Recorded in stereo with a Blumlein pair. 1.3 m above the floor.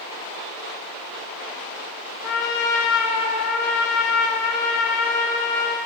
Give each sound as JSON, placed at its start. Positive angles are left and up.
{"t": 2.2, "sound": "a trumpet", "azimuth_deg": 40, "distance_m": 0.5}